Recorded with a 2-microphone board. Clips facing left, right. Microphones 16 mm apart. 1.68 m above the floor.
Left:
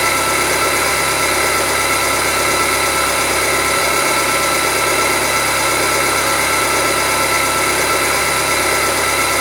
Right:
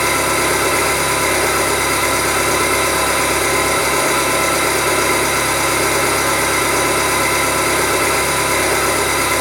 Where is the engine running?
80° left, 1.9 m.